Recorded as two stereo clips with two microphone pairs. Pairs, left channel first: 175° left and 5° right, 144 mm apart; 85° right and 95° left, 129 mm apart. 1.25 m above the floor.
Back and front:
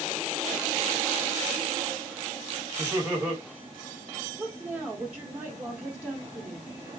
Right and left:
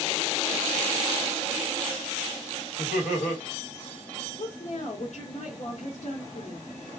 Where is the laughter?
75° right, 1.5 m.